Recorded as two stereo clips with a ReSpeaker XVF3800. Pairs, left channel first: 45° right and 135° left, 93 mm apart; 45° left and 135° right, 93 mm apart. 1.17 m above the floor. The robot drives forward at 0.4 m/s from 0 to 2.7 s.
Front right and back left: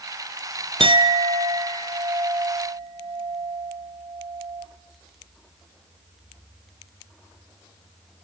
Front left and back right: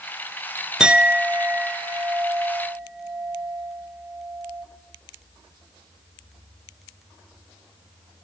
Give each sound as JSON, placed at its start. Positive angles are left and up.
{"t": 0.8, "sound": "a clink", "azimuth_deg": 145, "distance_m": 0.6}